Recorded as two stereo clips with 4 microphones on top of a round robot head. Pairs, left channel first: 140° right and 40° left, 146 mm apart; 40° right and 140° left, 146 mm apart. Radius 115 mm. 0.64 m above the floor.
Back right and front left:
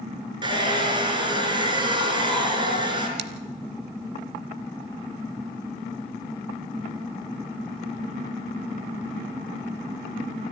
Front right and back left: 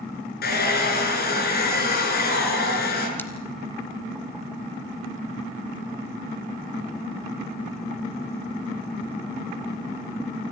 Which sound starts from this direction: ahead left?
Scissors, at 3.2 s.